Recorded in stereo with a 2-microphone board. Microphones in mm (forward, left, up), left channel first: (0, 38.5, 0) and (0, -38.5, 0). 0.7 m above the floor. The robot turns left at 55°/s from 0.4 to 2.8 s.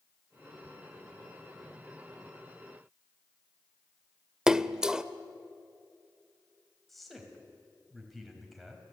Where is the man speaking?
Centre (ahead or behind), 5 m.